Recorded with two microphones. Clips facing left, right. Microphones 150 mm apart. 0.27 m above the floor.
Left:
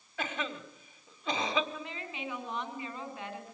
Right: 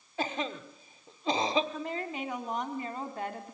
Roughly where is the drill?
I don't hear a drill.